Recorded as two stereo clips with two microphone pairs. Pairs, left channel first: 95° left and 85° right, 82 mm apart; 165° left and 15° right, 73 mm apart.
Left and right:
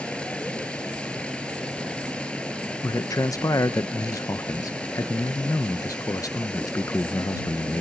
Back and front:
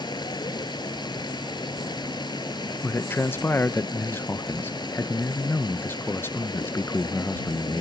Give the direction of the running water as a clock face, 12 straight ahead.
6 o'clock.